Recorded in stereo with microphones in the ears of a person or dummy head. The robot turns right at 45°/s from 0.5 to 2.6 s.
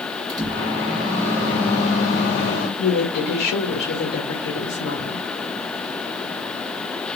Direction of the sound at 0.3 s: 20° right.